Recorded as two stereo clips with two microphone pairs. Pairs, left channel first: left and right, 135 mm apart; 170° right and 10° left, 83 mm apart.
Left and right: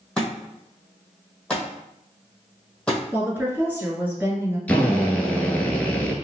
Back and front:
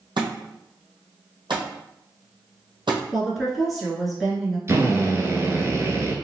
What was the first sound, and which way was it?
A thud, 10° left.